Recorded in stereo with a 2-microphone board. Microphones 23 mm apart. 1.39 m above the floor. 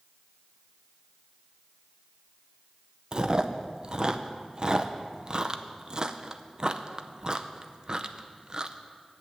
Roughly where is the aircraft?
I don't hear an aircraft.